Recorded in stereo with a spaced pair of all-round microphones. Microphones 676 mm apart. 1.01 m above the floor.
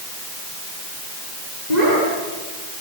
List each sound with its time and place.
1.7 s a child speaking: 75° left (ahead or behind), 9 m